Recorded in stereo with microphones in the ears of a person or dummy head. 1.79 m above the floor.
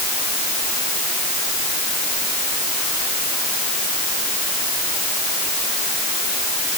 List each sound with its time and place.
Only background noise.